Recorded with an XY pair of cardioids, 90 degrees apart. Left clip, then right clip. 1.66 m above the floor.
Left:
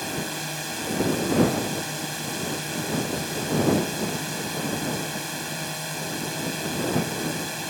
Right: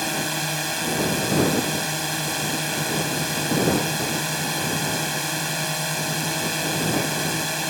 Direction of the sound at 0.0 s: 45° right.